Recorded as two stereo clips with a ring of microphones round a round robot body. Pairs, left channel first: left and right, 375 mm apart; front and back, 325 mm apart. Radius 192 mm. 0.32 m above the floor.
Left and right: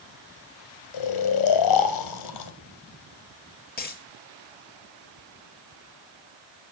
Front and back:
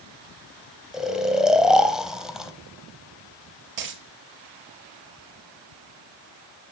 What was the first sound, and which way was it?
Snoring, 90° left.